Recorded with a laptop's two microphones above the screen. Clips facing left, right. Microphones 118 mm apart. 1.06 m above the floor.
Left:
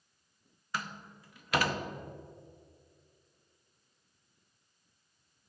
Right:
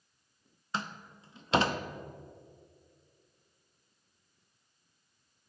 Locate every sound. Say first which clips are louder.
0.7 s a door slam: right 2 dB; 25° right (ahead or behind), 0.6 m